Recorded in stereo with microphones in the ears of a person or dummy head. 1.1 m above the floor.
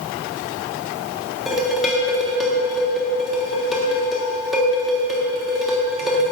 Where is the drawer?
No drawer in this recording.